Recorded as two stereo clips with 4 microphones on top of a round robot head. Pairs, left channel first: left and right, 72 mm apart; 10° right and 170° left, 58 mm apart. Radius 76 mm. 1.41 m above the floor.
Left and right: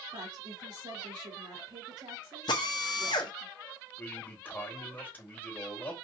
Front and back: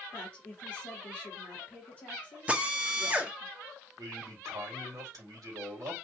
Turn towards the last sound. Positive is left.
turn(degrees=155)